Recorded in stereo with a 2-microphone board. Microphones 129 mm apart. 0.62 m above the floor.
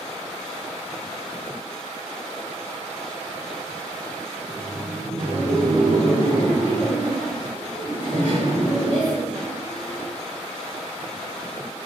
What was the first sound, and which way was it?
Laughter, 5° left (ahead or behind).